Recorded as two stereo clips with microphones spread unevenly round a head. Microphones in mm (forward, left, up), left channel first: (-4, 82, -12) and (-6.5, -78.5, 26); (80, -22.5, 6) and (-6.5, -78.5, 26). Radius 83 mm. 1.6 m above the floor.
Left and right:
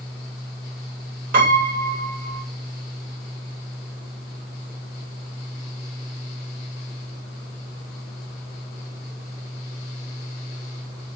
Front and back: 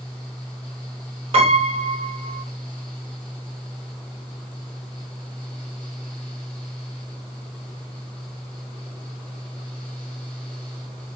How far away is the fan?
About 1.8 m.